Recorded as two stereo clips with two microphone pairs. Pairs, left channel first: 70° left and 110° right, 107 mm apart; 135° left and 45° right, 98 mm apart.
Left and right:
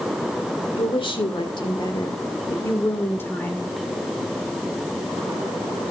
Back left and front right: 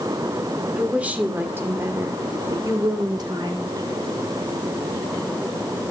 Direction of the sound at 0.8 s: 35° left.